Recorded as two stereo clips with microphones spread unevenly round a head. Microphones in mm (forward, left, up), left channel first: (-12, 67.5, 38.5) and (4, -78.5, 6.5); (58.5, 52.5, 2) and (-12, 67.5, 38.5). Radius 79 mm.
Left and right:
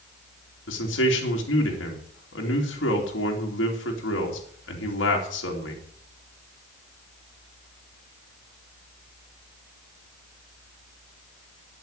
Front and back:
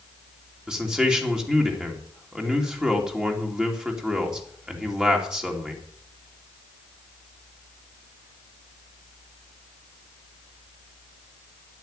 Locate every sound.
0.7 s a man speaking: 90° left, 3 m